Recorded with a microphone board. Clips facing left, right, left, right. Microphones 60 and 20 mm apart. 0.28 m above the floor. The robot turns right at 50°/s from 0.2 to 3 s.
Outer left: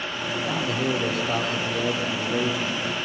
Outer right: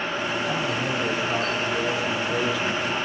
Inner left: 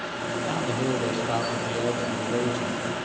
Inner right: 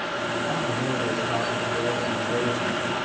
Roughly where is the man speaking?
Ahead left.